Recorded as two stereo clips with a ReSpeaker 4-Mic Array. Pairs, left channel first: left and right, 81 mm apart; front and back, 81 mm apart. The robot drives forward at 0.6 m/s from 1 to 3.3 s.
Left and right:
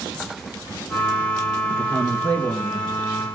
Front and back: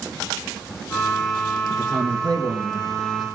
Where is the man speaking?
140° left, 2.5 m; by 3.2 s 150° left, 3.5 m.